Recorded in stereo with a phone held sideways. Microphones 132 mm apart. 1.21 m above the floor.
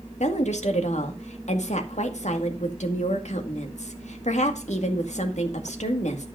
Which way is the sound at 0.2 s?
65° left (ahead or behind).